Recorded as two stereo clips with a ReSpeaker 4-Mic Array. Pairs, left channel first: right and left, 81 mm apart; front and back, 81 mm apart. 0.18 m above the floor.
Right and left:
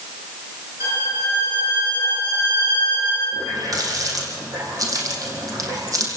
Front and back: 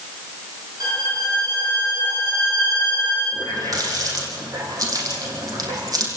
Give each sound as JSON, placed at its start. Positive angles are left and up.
{"t": 0.8, "sound": "a violin", "azimuth_deg": 135, "distance_m": 9.0}
{"t": 3.3, "sound": "a running tap", "azimuth_deg": 135, "distance_m": 5.5}